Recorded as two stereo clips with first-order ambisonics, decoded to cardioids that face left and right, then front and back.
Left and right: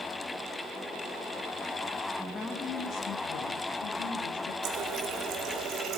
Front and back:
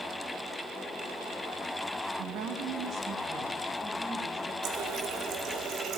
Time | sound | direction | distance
2.2 | a woman speaking | 175° left | 1.2 m
4.6 | a running tap | 135° right | 1.3 m